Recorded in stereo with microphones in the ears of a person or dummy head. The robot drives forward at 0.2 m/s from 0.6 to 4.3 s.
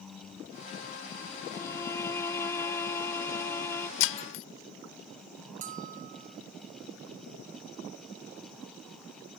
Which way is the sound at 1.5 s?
15° left (ahead or behind).